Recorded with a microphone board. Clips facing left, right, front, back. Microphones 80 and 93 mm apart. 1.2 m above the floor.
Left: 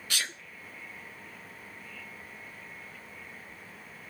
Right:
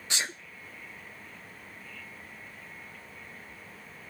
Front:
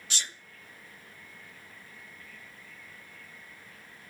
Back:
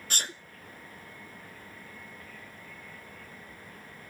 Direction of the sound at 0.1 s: 150° right.